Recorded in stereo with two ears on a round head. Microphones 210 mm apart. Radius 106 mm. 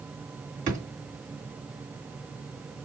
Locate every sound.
0.7 s a drawer: 35° right (ahead or behind), 2.5 m